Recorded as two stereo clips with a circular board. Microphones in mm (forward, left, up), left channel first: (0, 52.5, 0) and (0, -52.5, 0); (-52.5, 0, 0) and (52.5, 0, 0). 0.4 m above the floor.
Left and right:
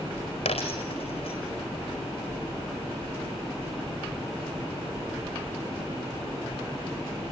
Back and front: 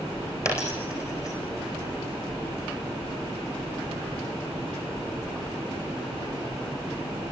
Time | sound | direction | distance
0.5 | a dropped coin | 120° left | 4.5 m